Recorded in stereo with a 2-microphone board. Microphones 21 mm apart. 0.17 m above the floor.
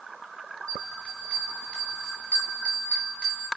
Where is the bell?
65° left (ahead or behind), 3 m.